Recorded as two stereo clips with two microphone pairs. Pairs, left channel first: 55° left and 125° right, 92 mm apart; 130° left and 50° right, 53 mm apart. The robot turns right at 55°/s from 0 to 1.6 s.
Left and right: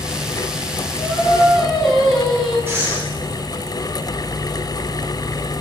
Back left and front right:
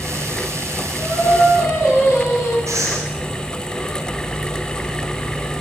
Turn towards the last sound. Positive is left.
turn(degrees=-55)